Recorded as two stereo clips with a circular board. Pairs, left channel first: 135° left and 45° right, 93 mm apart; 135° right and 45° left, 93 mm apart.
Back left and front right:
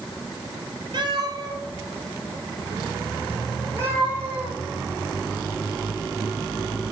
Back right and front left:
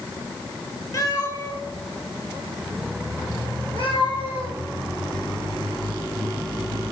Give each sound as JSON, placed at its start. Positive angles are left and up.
{"t": 0.9, "sound": "a cat meowing", "azimuth_deg": -85, "distance_m": 2.5}